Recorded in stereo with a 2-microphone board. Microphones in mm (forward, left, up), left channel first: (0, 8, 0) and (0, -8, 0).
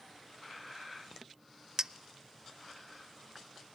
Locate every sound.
1.8 s a clink: 40° right (ahead or behind), 0.5 m